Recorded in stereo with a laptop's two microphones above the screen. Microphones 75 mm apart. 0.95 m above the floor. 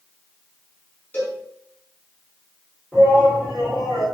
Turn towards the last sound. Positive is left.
turn(degrees=10)  # may be behind; listen again after turning